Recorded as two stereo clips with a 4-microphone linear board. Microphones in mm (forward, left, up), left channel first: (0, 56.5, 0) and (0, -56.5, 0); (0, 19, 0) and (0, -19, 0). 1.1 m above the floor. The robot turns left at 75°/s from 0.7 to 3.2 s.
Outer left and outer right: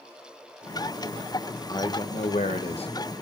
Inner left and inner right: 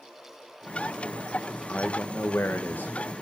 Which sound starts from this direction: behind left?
A man speaking, at 1.7 s.